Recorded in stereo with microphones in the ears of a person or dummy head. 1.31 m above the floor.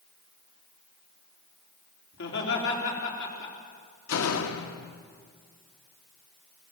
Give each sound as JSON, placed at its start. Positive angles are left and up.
{"t": 2.1, "sound": "laughter", "side_deg": 70, "distance_m": 4.0}
{"t": 4.1, "sound": "a door slam", "side_deg": 85, "distance_m": 1.5}